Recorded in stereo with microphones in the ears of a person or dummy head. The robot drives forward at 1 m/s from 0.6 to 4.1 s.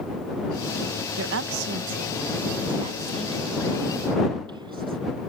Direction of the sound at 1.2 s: 75° right (ahead or behind).